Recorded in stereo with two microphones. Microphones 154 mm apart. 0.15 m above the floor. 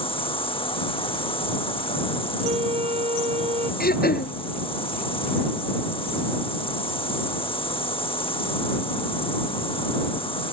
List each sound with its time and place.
0.0 s an insect: 35° left (ahead or behind)
2.4 s a flute: 40° right (ahead or behind)
3.8 s throat clearing: 85° left